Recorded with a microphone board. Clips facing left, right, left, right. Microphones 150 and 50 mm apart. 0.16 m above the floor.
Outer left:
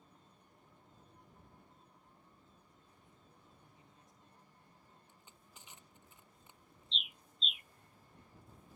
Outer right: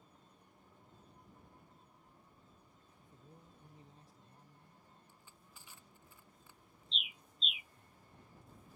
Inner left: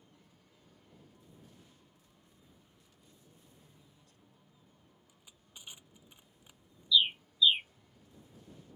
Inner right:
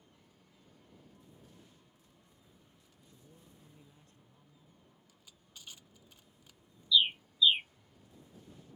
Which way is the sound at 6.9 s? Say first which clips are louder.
Even, even; 5° right (ahead or behind).